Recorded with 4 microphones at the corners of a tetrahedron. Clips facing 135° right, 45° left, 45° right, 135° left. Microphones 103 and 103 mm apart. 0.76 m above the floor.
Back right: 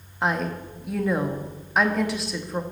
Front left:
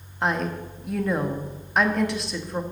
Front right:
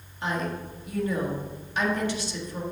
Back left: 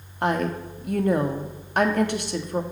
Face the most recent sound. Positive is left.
turn(degrees=135)